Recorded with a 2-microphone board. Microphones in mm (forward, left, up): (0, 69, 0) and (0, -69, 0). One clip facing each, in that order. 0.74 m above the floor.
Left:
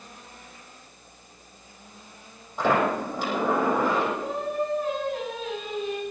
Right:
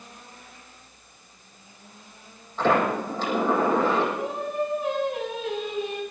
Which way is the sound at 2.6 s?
10° left (ahead or behind).